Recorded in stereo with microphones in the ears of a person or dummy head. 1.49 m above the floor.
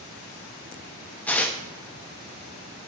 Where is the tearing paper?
10° left (ahead or behind), 0.6 m.